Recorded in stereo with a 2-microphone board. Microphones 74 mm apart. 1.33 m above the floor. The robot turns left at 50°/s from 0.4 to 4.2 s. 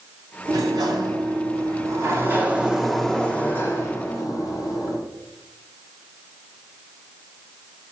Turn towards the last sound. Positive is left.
turn(degrees=115)